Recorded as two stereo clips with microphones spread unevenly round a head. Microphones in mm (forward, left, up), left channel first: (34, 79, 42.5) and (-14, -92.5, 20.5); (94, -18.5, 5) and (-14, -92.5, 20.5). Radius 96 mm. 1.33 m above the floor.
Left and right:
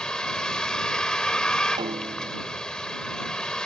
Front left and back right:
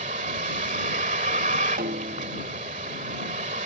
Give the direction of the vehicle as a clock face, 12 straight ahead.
7 o'clock.